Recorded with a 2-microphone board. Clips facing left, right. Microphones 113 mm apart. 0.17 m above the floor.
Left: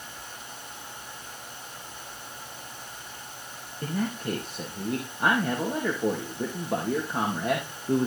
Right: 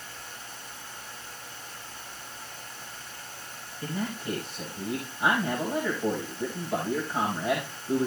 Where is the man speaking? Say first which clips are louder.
Left 3 dB; 60° left (ahead or behind), 4 m.